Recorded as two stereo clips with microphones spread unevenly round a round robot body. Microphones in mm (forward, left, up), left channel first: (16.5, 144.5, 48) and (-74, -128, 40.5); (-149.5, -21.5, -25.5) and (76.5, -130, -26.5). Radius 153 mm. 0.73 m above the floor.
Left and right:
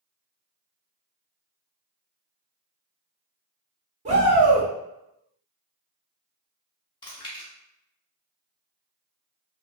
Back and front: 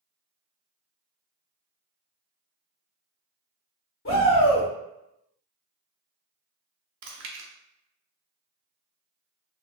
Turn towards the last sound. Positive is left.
turn(degrees=0)